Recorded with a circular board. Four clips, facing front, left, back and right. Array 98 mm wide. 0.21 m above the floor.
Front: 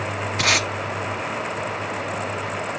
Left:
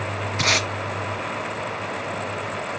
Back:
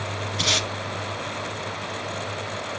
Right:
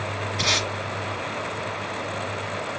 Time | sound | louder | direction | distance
0.4 | tape being pulled | left 3 dB, front 5 dB | 30° left | 1.1 m